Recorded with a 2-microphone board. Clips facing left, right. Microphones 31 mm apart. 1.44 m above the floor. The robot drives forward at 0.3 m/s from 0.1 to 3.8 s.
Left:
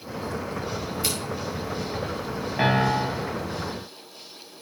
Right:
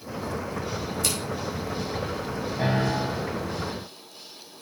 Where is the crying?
No crying in this recording.